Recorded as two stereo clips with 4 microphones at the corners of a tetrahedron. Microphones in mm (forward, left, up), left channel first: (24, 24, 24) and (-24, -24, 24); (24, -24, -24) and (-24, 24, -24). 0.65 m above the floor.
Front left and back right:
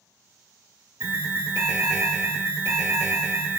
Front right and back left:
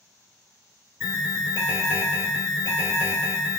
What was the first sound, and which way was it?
An alarm, 160° right.